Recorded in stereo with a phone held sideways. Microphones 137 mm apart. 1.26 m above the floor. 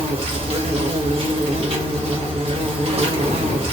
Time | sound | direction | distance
0.0 | an insect | 45° right (ahead or behind) | 1.0 m